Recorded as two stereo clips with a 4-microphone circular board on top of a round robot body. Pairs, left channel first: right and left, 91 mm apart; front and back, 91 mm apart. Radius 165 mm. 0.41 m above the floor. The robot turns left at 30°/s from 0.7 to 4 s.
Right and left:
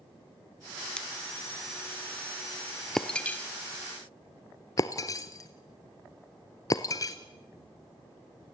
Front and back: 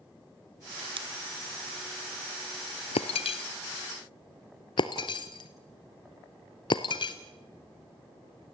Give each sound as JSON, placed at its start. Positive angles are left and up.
{"t": 1.0, "sound": "scissors", "azimuth_deg": -170, "distance_m": 1.5}
{"t": 3.0, "sound": "breaking glass", "azimuth_deg": -5, "distance_m": 0.7}